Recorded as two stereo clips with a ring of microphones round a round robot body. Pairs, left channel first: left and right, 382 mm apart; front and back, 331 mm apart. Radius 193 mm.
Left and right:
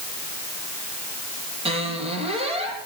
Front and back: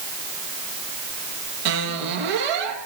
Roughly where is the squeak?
Behind.